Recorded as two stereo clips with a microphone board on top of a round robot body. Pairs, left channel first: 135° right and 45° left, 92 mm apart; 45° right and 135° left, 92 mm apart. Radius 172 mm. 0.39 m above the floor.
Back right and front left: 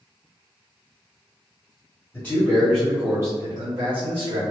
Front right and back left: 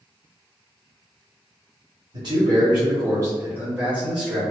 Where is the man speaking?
160° left, 1.4 m; by 4.4 s 45° left, 1.8 m.